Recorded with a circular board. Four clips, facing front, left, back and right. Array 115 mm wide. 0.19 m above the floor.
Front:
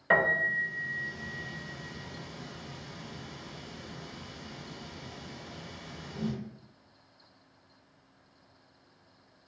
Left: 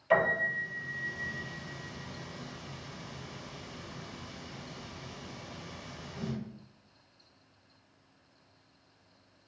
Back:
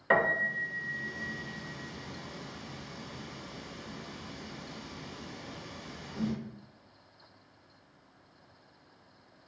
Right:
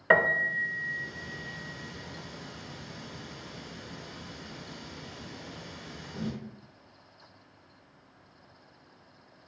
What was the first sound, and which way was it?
A piano, 90° right.